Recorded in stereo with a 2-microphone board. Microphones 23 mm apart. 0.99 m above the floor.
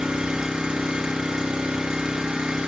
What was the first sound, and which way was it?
An engine running, 35° right (ahead or behind).